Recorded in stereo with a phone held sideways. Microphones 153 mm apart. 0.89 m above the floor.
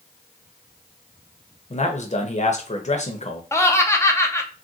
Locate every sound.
1.7 s a man speaking: 45° left (ahead or behind), 0.6 m
3.5 s laughter: 15° left (ahead or behind), 0.5 m